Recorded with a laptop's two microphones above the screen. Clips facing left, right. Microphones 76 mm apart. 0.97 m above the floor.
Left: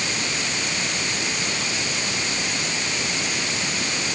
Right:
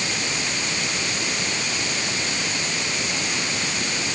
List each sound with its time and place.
Only background noise.